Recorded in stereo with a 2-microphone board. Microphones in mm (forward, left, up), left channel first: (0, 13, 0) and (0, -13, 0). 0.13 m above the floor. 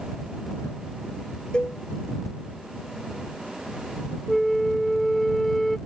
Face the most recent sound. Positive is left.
turn(degrees=5)  # may be behind; listen again after turning